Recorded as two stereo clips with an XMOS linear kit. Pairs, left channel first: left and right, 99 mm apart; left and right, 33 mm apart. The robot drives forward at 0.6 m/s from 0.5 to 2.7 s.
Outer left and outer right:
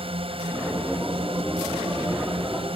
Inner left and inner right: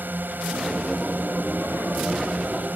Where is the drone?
75° right (ahead or behind).